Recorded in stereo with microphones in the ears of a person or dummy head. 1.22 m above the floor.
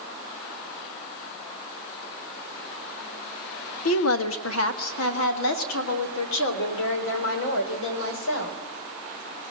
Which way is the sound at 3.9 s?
80° left.